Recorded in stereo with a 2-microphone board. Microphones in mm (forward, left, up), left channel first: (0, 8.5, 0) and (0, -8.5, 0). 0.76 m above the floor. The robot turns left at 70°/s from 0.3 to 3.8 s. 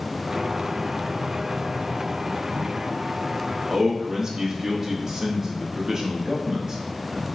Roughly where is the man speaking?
Right.